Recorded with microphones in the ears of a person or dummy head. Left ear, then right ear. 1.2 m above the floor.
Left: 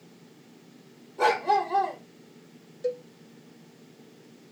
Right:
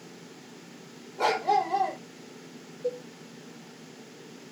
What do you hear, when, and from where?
1.2 s a dog barking: 20° left (ahead or behind), 1.4 m
2.8 s a cowbell: 50° left (ahead or behind), 0.5 m